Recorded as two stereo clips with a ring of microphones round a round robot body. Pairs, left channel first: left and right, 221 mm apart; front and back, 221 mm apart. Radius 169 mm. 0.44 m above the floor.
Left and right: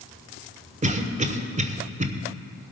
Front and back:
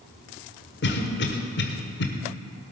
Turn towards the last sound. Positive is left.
turn(degrees=-35)